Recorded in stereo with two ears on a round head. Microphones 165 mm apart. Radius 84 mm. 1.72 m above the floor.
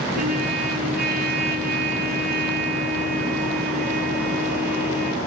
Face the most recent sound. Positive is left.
turn(degrees=-50)  # may be behind; listen again after turning